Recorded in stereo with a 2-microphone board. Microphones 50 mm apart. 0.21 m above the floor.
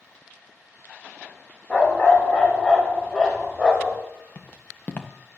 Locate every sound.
1.7 s a dog barking: 30° left (ahead or behind), 6 m; by 4.0 s 20° left (ahead or behind), 8.5 m
4.3 s footsteps: 30° left (ahead or behind), 1.6 m